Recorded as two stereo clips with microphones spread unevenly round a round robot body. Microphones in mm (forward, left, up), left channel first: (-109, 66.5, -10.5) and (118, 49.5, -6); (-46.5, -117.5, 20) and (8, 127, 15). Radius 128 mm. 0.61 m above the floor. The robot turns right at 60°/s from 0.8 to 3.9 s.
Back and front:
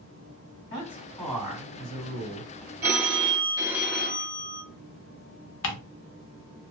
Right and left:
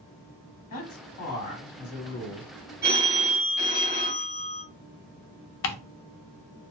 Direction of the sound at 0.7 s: 120° right.